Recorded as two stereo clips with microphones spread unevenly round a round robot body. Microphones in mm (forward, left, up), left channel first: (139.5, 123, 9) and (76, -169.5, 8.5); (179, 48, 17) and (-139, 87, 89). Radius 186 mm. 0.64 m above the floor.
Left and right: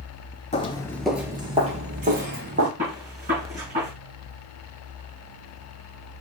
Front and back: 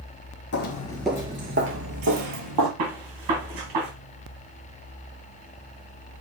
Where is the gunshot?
170° right, 2.5 m.